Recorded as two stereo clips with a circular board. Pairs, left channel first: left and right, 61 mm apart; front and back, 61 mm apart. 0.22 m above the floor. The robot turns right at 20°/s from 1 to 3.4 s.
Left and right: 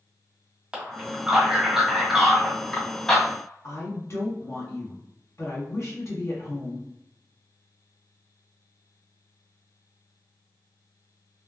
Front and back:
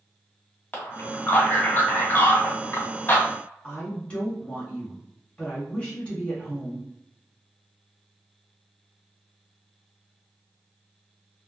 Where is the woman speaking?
70° left, 1.9 m.